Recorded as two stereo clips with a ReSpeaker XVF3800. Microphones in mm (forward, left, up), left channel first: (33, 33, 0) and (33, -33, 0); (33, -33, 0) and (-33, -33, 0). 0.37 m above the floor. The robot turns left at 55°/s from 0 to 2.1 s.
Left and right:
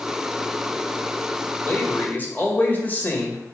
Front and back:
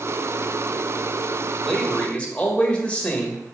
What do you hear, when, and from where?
1.6 s a man speaking: 80° left, 1.5 m; by 3.4 s 55° left, 1.5 m